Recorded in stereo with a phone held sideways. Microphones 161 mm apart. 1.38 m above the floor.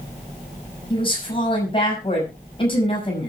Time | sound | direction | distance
0.9 | a woman speaking | 35° left (ahead or behind) | 6.5 m